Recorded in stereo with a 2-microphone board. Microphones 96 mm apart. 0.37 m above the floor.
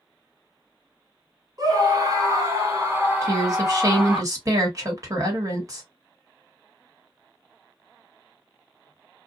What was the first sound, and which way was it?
A scream, 40° right (ahead or behind).